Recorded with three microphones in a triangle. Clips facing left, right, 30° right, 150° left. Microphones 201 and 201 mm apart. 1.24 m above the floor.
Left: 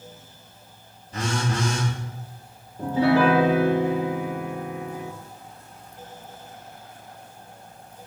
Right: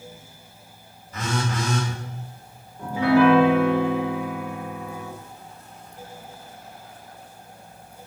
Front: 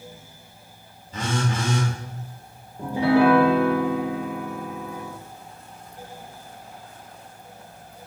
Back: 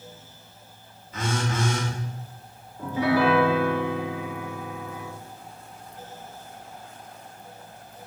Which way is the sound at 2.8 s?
30° left.